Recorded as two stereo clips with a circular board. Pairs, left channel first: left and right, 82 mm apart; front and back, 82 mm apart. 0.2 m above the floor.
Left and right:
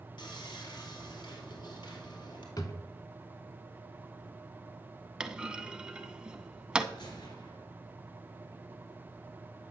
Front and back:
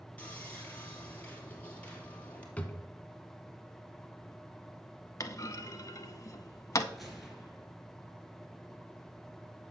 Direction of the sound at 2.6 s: 70° left.